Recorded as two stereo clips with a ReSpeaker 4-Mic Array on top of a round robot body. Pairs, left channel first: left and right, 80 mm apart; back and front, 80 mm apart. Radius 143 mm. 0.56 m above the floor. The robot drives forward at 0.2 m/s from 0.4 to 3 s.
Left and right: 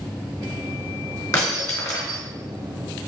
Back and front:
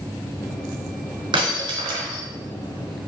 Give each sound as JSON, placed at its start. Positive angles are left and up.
{"t": 1.3, "sound": "breaking glass", "azimuth_deg": 30, "distance_m": 1.1}